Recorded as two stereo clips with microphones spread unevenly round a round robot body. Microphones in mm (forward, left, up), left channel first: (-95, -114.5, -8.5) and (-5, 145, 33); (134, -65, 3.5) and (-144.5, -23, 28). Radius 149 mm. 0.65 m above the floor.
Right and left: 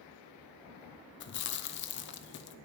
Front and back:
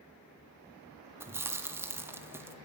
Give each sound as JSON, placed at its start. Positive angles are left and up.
{"t": 1.2, "sound": "chewing", "azimuth_deg": -105, "distance_m": 0.9}